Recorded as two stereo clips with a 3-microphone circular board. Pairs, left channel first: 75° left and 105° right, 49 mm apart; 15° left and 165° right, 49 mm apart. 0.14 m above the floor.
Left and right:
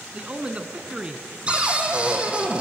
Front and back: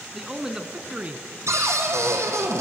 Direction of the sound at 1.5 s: 175° right.